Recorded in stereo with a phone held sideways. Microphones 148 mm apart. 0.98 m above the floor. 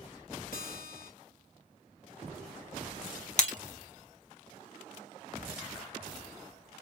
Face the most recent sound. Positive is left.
turn(degrees=55)  # may be behind; listen again after turning